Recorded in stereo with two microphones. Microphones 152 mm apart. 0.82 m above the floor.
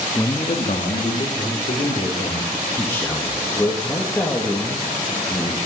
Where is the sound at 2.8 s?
15° left (ahead or behind), 1.2 m.